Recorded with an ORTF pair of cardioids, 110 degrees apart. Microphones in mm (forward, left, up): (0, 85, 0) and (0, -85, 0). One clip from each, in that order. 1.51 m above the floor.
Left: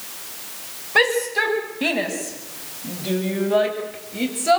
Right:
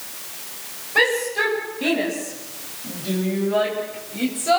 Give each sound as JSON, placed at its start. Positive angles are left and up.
{"t": 0.9, "sound": "a shout", "azimuth_deg": 40, "distance_m": 10.0}